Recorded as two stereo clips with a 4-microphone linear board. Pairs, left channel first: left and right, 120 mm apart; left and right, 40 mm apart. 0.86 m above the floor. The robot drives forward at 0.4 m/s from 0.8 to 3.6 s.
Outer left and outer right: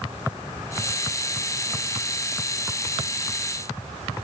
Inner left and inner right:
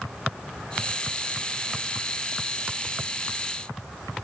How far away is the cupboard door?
I don't hear a cupboard door.